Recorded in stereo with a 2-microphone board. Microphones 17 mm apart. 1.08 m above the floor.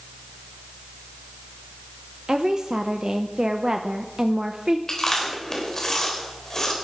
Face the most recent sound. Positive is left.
turn(degrees=40)  # may be behind; listen again after turning